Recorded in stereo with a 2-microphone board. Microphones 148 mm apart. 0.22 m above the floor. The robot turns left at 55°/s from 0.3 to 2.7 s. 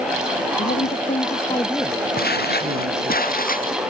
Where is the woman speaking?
80° left; by 3.2 s 35° right.